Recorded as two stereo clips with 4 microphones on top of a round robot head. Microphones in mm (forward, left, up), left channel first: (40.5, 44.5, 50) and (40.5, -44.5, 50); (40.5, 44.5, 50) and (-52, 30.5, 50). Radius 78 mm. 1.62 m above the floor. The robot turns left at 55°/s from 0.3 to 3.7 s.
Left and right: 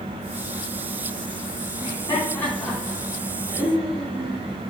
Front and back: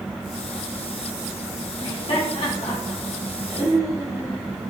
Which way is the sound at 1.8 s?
55° left.